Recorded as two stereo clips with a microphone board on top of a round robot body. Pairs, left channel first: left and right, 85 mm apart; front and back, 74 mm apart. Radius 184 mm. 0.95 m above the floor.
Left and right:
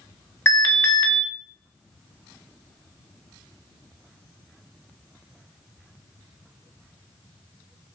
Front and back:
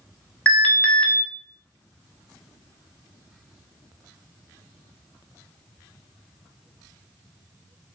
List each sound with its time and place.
0.5 s an alarm: 45° left, 1.4 m